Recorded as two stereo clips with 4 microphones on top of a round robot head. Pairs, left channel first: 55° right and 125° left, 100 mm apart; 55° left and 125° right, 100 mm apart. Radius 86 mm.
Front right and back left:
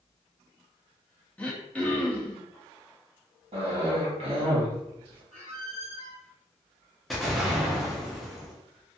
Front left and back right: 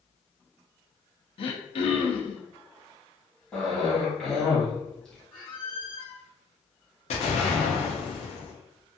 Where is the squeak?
130° left, 1.5 m.